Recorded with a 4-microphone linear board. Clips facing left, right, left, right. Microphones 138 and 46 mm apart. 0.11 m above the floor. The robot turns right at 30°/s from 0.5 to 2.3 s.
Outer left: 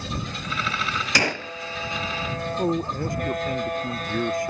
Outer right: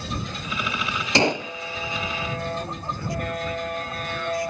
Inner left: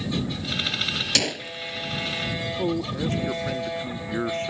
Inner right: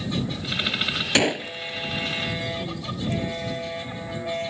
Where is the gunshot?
25° right (ahead or behind); by 1.5 s 15° right (ahead or behind).